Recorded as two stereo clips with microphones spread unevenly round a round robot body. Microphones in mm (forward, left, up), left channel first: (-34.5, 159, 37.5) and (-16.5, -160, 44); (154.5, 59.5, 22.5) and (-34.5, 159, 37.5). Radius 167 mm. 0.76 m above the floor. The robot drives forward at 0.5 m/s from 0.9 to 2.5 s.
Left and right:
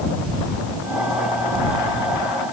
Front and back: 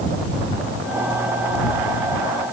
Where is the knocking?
I don't hear knocking.